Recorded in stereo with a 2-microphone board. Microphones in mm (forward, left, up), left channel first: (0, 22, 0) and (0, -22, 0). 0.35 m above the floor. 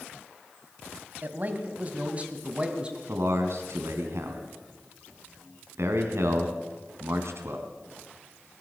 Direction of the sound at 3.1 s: 70° right (ahead or behind).